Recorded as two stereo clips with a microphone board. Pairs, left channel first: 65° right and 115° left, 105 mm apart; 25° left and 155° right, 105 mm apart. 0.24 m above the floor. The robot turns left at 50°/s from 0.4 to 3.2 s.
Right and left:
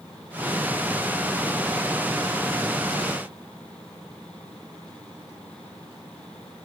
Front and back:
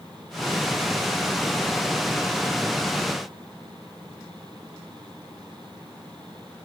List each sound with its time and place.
Only background noise.